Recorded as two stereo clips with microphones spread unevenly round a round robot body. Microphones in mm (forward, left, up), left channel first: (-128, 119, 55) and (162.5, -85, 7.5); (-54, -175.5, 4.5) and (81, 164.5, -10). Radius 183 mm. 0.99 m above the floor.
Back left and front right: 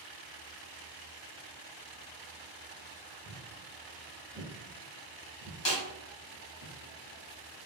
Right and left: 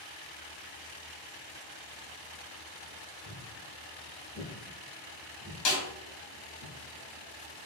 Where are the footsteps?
135° right, 1.6 m; by 6.7 s 15° left, 1.2 m.